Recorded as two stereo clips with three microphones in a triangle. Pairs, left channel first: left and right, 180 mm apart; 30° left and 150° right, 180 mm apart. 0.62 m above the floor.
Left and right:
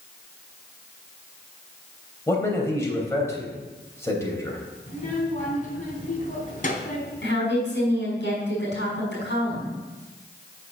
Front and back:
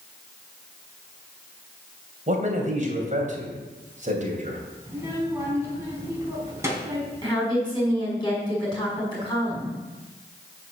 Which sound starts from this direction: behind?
A man speaking, at 2.3 s.